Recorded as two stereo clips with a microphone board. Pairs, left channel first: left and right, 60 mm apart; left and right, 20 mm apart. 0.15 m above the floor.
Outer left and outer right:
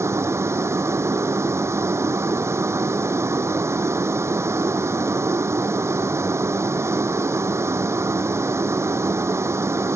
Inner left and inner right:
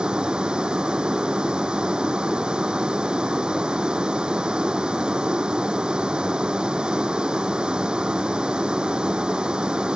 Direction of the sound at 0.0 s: 50° right (ahead or behind).